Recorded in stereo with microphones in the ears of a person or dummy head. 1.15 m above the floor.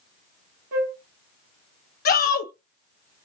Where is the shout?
50° left (ahead or behind), 1.0 m.